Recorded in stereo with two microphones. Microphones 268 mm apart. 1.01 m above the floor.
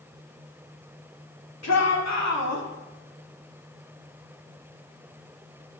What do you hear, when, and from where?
1.6 s a shout: 70° left (ahead or behind), 2.5 m; by 2.6 s 75° left (ahead or behind), 2 m